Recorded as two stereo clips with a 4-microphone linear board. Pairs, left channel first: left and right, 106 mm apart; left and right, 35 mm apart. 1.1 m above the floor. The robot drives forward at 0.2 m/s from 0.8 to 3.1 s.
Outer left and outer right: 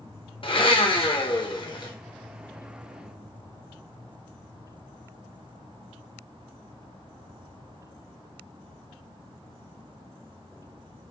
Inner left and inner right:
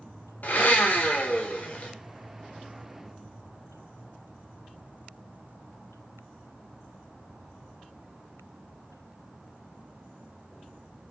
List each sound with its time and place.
0.4 s a blender: 55° left (ahead or behind), 0.5 m; by 1.9 s 45° left (ahead or behind), 0.6 m